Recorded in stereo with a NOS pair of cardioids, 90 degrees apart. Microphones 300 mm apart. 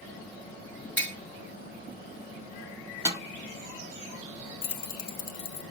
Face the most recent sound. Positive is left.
turn(degrees=55)